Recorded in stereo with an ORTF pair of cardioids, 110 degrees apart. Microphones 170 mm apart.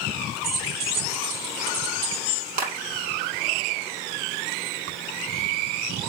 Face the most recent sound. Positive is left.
turn(degrees=-50)